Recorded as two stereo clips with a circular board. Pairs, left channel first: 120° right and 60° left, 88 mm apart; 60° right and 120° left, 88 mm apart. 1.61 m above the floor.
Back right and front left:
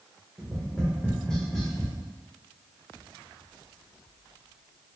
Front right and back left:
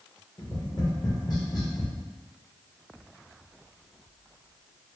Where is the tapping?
40° right, 1.0 m.